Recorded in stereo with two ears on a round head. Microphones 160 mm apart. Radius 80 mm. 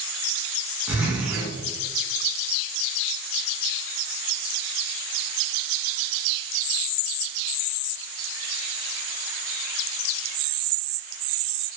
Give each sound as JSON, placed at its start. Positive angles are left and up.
{"t": 0.9, "sound": "a zipper", "side_deg": -10, "distance_m": 1.2}